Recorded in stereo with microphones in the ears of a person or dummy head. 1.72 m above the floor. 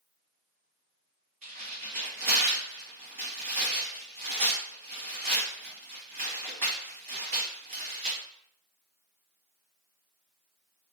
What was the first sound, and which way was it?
Tearing paper, 35° right (ahead or behind).